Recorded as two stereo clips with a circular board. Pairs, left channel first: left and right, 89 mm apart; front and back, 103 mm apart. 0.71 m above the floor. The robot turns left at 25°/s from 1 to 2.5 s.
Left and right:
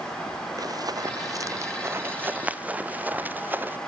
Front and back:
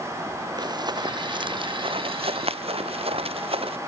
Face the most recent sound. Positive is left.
turn(degrees=-160)